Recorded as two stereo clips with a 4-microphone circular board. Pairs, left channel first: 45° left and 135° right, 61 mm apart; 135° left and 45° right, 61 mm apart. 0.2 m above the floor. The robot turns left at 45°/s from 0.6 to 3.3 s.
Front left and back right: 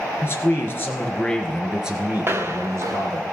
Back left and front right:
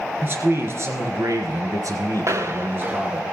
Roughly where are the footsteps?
Right.